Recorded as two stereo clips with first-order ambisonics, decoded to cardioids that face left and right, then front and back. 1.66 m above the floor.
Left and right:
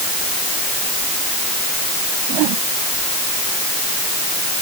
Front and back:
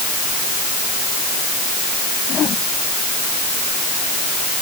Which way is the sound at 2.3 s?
60° right.